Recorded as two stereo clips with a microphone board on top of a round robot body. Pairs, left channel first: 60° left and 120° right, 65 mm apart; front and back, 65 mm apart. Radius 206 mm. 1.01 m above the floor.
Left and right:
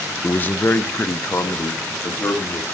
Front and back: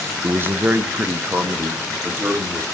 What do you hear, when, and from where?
0.2 s a man speaking: 125° left, 0.6 m; by 2.6 s 110° left, 2 m